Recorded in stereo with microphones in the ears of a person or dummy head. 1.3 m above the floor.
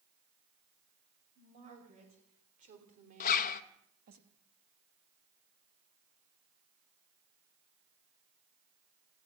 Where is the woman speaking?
40° right (ahead or behind), 6 m; by 4.2 s 50° right (ahead or behind), 1.9 m.